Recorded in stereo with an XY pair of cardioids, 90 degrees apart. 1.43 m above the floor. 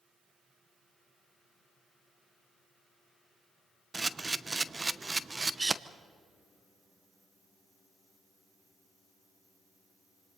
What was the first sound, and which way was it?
A camera shutter, 25° right.